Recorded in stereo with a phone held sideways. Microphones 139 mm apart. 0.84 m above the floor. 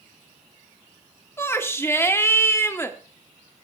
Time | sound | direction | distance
1.4 | a shout | 20° left (ahead or behind) | 1.4 m